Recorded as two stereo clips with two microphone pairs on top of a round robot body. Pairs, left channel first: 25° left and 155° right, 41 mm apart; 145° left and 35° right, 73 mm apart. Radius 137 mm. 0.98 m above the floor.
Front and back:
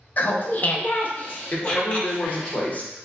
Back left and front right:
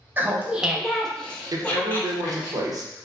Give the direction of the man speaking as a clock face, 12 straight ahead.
1 o'clock.